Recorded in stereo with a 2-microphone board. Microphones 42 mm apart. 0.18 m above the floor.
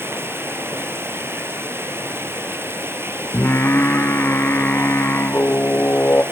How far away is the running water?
About 2.5 m.